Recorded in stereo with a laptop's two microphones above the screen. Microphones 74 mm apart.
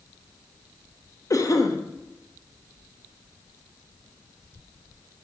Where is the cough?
50° left (ahead or behind), 1.0 m.